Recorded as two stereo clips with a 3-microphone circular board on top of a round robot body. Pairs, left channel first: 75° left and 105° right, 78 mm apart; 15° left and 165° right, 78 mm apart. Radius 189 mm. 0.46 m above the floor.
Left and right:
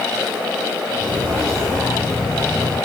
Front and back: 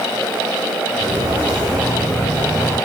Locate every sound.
0.9 s footsteps: 165° left, 3.5 m; by 2.8 s 155° left, 1.9 m